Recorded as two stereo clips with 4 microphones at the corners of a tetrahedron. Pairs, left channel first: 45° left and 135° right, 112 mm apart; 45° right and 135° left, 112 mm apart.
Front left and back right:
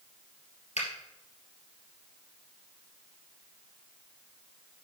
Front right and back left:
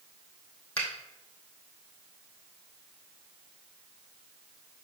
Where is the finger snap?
35° left, 2.5 m.